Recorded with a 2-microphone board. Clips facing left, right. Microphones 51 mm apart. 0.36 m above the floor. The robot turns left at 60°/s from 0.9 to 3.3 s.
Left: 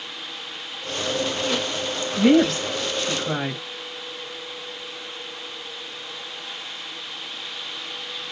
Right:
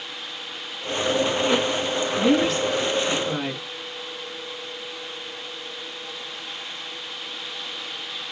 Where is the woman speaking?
55° left (ahead or behind), 2.5 m; by 3.6 s 35° left (ahead or behind), 2.5 m.